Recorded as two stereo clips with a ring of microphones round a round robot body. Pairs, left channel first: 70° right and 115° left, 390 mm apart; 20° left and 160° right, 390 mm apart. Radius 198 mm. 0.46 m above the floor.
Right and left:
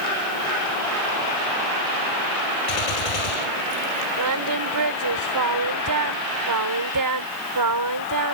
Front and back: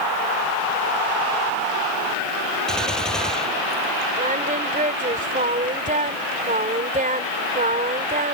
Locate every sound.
2.7 s a gunshot: 65° right
4.2 s singing: 135° left